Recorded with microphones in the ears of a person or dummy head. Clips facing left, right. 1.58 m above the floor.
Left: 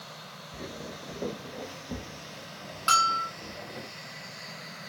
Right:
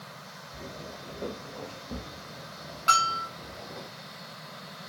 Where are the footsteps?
15° left (ahead or behind), 1.6 m; by 3.9 s 5° left (ahead or behind), 4.5 m.